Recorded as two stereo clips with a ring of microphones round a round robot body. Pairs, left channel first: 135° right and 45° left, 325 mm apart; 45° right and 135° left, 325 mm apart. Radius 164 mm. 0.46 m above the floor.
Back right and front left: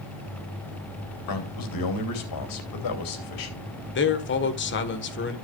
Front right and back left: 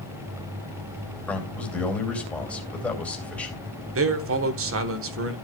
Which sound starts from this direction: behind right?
A man speaking, at 1.3 s.